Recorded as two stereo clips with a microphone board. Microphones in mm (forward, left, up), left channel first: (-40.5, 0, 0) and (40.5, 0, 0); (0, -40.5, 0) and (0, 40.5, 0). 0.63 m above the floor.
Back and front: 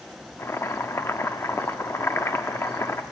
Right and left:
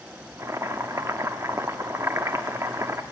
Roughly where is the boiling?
Behind left.